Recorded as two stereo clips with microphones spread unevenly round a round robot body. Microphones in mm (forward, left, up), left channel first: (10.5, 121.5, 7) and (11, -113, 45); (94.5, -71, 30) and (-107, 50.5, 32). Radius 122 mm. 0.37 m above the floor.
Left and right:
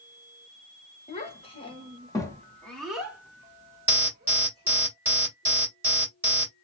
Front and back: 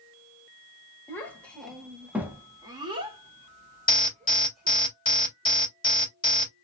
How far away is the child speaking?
About 1.3 m.